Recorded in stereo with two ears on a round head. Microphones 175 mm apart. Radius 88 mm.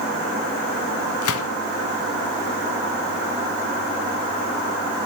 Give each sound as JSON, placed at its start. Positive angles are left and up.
{"t": 1.2, "sound": "a gunshot", "side_deg": 80, "distance_m": 1.3}